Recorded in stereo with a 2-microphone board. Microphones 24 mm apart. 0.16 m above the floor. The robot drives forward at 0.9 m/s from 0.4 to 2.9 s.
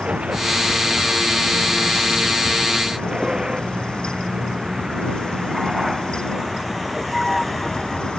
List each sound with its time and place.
0.0 s a vehicle: 55° right (ahead or behind); by 8.2 s 5° right (ahead or behind)